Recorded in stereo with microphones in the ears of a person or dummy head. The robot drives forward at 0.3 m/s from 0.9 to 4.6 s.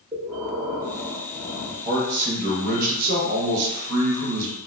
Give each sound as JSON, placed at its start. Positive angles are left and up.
{"t": 0.1, "sound": "breathing", "side_deg": -10, "distance_m": 0.6}
{"t": 1.9, "sound": "a man speaking", "side_deg": -35, "distance_m": 1.2}